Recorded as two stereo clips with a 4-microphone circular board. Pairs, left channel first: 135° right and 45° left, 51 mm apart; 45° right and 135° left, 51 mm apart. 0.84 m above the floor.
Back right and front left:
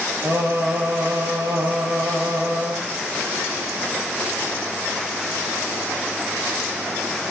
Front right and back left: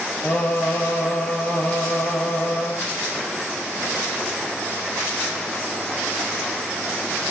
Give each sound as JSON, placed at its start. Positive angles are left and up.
{"t": 0.2, "sound": "singing", "azimuth_deg": 20, "distance_m": 5.0}